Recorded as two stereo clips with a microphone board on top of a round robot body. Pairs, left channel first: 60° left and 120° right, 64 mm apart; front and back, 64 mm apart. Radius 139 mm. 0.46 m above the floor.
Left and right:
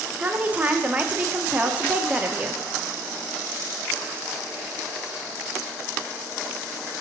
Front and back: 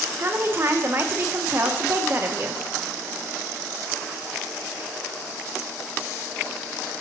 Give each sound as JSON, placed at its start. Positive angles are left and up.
{"t": 0.2, "sound": "a woman speaking", "azimuth_deg": -170, "distance_m": 0.9}